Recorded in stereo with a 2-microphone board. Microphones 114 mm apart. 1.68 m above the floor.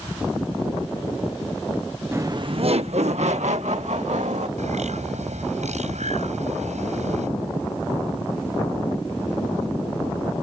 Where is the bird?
85° right.